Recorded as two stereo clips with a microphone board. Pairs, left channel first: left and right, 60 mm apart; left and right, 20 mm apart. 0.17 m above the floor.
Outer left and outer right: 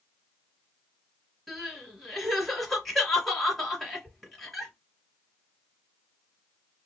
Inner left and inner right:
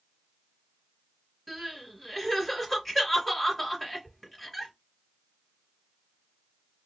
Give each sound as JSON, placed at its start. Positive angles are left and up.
{"t": 1.5, "sound": "crying", "side_deg": 0, "distance_m": 2.0}